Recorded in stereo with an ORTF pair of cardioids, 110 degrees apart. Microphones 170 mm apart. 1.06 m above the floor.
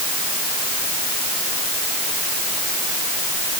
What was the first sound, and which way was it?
Only background noise.